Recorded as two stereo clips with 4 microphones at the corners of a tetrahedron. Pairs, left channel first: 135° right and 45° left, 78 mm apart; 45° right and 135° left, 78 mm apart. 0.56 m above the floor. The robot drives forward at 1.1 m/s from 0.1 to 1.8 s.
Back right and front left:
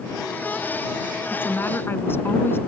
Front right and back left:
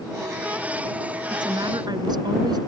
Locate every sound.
1.3 s a woman speaking: 160° left; by 2.6 s 165° left